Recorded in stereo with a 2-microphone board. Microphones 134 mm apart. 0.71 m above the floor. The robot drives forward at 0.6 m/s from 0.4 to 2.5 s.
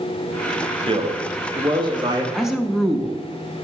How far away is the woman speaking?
About 0.7 m.